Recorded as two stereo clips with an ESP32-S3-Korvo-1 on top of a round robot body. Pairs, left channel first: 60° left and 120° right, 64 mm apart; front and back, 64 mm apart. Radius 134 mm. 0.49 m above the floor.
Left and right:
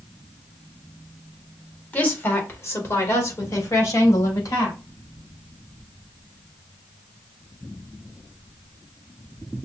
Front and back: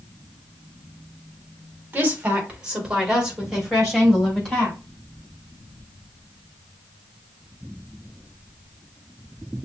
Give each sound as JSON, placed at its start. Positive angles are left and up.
{"t": 1.9, "sound": "a woman speaking", "azimuth_deg": 120, "distance_m": 1.8}